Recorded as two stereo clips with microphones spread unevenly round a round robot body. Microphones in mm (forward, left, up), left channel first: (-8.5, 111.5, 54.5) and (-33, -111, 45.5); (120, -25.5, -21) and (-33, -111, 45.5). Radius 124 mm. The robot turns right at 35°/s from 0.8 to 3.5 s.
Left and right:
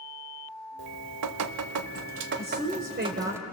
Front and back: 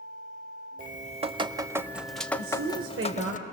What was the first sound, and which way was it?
Dripping, 105° right.